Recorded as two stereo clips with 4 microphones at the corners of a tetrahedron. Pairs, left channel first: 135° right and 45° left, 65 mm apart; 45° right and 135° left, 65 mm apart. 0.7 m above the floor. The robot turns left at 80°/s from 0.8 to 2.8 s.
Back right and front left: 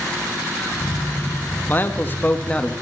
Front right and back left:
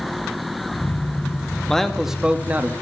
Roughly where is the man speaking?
Behind right.